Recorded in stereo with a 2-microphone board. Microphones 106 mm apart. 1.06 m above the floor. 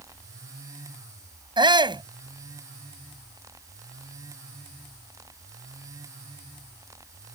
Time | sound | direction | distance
1.6 | a shout | 45° right (ahead or behind) | ?